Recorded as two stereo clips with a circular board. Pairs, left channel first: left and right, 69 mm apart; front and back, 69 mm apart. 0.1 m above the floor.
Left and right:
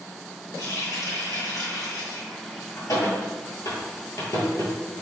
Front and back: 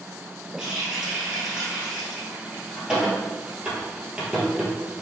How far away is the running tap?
About 1.8 m.